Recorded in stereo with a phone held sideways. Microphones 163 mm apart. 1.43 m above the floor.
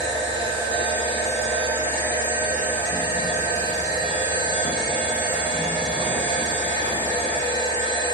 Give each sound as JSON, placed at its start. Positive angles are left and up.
{"t": 0.0, "sound": "a machine running", "side_deg": -25, "distance_m": 3.5}